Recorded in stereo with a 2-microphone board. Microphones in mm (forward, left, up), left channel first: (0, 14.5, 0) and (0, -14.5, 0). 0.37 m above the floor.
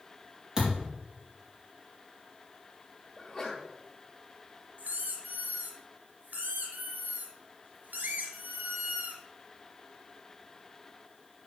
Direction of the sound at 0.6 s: 30° right (ahead or behind).